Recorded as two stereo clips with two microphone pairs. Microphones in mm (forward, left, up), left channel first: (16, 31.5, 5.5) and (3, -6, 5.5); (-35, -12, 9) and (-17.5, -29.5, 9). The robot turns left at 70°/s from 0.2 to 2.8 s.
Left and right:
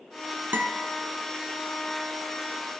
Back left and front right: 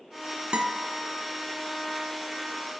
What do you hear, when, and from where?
0.5 s a guitar: 75° right, 0.8 m; by 0.9 s 100° right, 0.8 m